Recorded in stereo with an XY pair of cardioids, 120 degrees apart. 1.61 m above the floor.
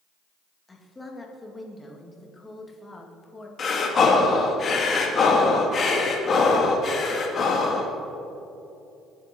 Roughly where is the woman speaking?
Ahead.